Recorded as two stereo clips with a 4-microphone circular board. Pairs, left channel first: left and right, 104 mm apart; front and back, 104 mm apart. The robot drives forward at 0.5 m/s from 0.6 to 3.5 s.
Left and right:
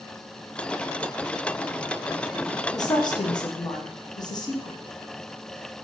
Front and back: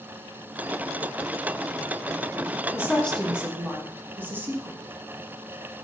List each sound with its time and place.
2.7 s a woman speaking: 55° left, 0.6 m; by 4.8 s 115° left, 0.5 m